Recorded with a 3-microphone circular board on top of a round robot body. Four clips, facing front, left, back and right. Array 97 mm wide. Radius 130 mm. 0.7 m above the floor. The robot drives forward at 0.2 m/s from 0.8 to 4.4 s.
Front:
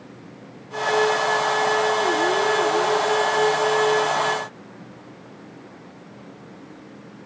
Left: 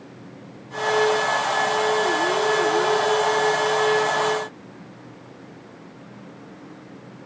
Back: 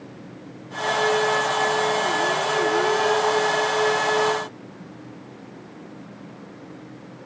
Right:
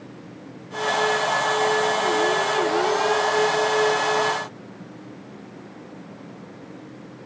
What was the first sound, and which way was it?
Only background noise.